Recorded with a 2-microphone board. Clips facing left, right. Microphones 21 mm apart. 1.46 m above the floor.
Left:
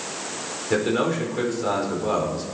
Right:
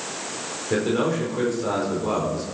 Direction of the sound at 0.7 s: 15° left (ahead or behind).